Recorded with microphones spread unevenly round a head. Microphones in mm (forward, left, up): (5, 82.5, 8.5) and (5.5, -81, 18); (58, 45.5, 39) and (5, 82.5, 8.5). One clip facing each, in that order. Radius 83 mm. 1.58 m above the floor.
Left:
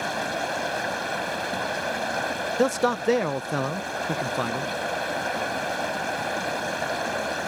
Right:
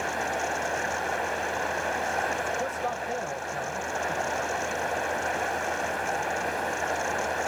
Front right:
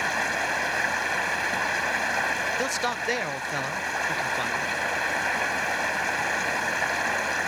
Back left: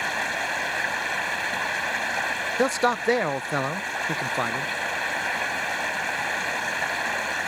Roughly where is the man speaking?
Left.